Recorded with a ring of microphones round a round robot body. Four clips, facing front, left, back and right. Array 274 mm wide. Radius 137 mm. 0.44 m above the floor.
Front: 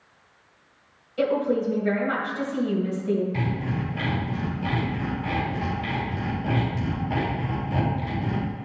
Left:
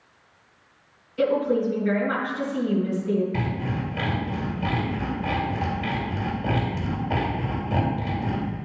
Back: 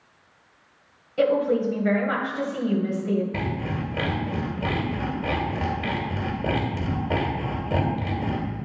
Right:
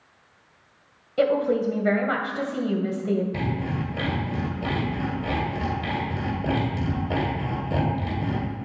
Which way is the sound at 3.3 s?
160° right.